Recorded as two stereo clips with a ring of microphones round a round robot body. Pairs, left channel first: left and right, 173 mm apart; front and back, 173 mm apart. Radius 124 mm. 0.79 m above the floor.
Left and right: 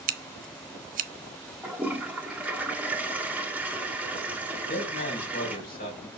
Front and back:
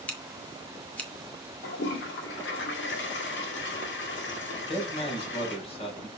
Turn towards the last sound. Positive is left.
turn(degrees=55)